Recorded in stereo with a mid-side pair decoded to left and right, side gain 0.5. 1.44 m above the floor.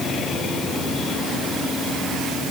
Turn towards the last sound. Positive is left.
No sound to turn to.